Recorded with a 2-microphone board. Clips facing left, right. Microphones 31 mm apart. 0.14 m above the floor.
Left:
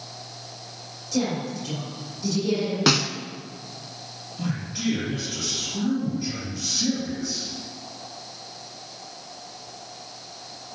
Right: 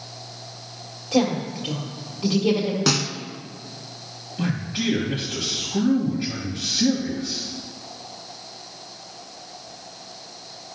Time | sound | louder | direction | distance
1.1 | a woman speaking | right 5 dB | 55° right (ahead or behind) | 3.5 m
2.9 | a snare drum | left 4 dB | 20° left (ahead or behind) | 0.5 m
4.4 | a man speaking | right 3 dB | 55° right (ahead or behind) | 2.5 m